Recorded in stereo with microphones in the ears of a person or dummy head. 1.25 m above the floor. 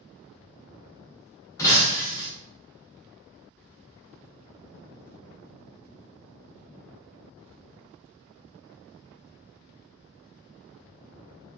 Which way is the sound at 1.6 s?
15° left (ahead or behind).